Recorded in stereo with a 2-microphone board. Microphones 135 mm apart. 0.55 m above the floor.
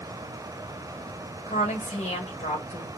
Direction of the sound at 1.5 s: 60° left (ahead or behind).